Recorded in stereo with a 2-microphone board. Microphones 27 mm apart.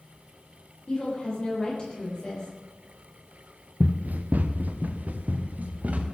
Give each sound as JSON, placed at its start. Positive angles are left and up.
{"t": 0.9, "sound": "a woman speaking", "side_deg": 35, "distance_m": 8.5}
{"t": 3.8, "sound": "running footsteps", "side_deg": -70, "distance_m": 1.2}